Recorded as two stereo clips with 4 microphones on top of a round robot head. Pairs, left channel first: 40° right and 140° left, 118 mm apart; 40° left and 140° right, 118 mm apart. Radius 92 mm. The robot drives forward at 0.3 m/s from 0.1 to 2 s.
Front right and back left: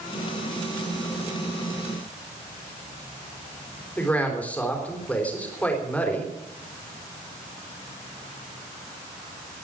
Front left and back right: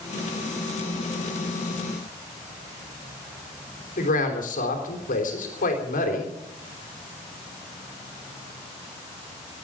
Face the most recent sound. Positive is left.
turn(degrees=40)